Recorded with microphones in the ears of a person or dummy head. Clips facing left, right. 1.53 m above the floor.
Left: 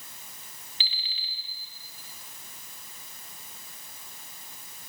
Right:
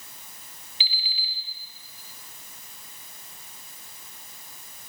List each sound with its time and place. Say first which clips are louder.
0.8 s an alarm clock: right 5 dB; 30° left (ahead or behind), 0.7 m